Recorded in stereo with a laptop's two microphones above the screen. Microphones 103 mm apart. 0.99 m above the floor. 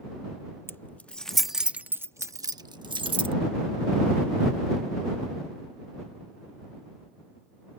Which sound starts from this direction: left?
Keys jangling, at 0.7 s.